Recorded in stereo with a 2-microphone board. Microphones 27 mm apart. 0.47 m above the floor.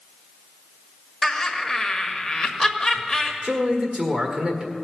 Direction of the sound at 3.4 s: 40° right (ahead or behind).